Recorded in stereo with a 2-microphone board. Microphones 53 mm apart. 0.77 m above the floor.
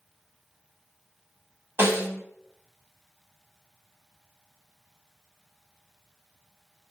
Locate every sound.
1.8 s a snare drum: 40° right (ahead or behind), 1.3 m